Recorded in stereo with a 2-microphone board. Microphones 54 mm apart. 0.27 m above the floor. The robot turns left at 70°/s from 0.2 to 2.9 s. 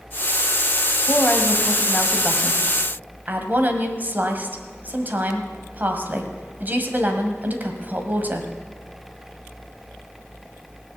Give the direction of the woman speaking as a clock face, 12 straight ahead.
10 o'clock.